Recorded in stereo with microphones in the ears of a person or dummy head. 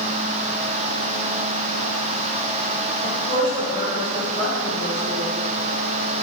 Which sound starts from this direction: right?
A woman speaking, at 3.0 s.